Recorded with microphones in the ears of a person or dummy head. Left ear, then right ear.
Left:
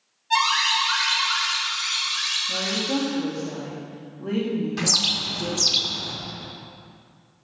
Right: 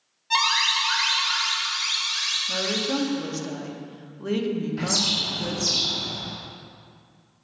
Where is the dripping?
No dripping in this recording.